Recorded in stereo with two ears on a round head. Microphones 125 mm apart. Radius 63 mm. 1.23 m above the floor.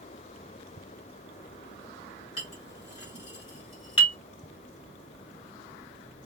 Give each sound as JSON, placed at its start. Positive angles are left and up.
{"t": 2.4, "sound": "a clink", "side_deg": 40, "distance_m": 1.7}